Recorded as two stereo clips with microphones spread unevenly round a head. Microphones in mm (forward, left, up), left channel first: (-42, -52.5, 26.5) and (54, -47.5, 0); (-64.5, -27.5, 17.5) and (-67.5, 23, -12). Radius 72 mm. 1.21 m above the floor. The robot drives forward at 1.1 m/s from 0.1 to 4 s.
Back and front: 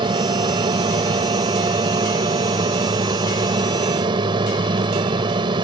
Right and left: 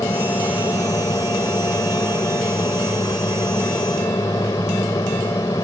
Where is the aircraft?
35° right.